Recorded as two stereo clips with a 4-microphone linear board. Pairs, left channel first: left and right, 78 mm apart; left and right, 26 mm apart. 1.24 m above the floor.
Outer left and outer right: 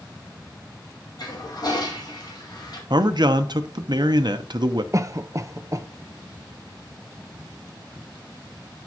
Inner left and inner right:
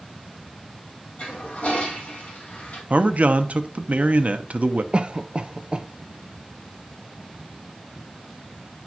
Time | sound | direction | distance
1.2 | a toilet flushing | 60° left (ahead or behind) | 2 m
2.9 | a man speaking | 65° right (ahead or behind) | 0.8 m
4.9 | a cough | 40° right (ahead or behind) | 0.6 m